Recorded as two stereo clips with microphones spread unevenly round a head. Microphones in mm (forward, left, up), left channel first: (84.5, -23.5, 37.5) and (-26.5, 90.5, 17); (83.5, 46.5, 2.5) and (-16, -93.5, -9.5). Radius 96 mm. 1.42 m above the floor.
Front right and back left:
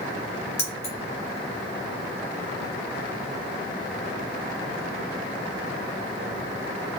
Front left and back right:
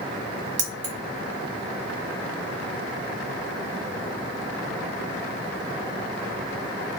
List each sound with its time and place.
0.6 s keys jangling: 90° right, 0.7 m